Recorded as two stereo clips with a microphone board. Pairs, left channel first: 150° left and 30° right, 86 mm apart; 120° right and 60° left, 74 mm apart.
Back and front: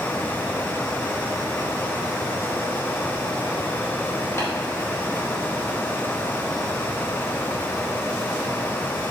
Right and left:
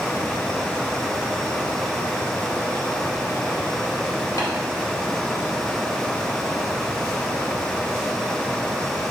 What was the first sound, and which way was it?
Tapping, 155° right.